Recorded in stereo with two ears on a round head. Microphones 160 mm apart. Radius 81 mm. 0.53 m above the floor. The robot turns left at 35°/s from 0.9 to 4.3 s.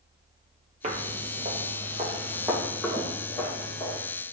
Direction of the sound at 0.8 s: 40° right (ahead or behind).